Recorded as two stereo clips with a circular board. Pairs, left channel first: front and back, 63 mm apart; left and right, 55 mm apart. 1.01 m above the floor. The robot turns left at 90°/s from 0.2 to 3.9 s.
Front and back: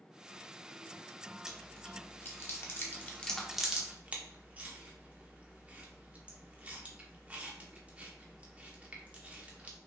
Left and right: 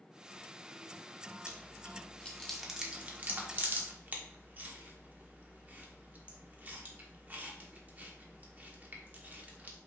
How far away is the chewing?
About 1.0 m.